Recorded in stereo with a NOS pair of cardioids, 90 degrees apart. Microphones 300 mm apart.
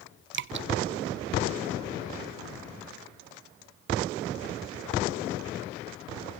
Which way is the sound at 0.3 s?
40° right.